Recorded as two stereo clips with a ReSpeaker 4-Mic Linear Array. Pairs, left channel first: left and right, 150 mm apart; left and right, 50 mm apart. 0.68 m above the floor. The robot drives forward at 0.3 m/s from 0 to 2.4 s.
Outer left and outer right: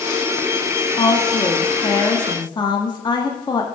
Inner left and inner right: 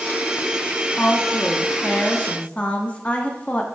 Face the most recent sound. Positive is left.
turn(degrees=30)  # may be behind; listen again after turning